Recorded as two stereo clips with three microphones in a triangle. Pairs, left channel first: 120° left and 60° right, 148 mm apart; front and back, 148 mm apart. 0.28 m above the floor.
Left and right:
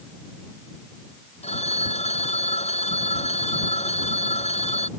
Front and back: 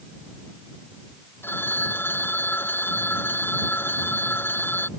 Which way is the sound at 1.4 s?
75° left.